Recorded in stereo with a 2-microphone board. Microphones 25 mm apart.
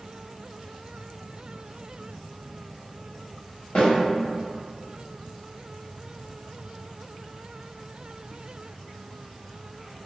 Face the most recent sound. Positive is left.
turn(degrees=55)  # may be behind; listen again after turning